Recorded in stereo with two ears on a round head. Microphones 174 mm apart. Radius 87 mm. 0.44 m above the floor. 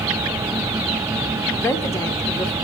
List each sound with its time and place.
1.6 s a woman speaking: 15° left (ahead or behind), 0.8 m